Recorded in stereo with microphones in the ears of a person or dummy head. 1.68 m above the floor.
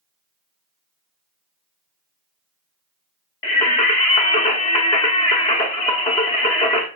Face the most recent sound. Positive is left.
turn(degrees=15)  # may be behind; listen again after turning